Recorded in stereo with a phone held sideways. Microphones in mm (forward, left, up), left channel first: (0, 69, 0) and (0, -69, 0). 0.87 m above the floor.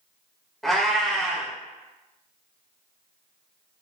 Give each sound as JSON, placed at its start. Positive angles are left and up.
{"t": 0.6, "sound": "a cat meowing", "side_deg": 0, "distance_m": 0.7}